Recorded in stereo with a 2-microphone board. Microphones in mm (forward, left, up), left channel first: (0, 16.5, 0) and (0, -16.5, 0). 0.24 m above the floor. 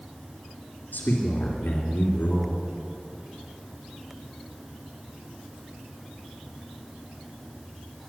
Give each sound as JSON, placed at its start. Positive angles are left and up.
{"t": 0.9, "sound": "a man speaking", "side_deg": 70, "distance_m": 3.0}